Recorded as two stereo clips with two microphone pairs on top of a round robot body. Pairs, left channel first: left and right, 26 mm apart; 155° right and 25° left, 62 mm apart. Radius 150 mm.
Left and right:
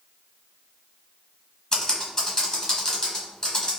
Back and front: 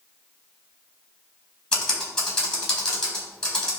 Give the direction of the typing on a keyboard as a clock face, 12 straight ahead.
7 o'clock.